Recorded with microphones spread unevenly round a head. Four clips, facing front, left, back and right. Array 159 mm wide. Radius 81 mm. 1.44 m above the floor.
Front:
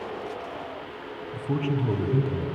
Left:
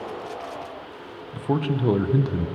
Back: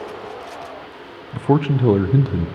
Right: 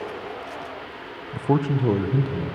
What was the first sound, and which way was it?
A man speaking, 160° right.